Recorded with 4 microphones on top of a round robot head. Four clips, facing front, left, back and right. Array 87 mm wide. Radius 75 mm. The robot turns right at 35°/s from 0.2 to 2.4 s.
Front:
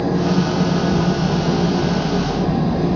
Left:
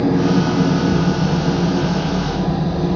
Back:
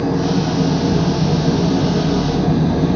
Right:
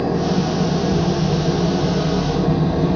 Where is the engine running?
110° left, 5 m; by 3.0 s 170° right, 5 m.